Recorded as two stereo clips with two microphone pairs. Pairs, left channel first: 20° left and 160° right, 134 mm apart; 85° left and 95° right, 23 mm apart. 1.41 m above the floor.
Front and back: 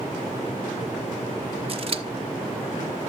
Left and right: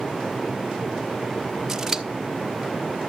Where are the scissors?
160° right, 1.1 m.